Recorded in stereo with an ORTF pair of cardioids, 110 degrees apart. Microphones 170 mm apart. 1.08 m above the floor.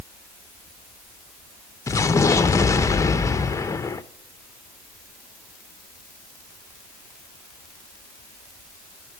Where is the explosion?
15° left, 0.7 m.